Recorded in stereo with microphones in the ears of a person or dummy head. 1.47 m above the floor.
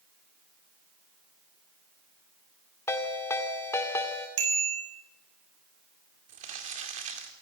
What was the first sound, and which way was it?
A ringtone, 15° left (ahead or behind).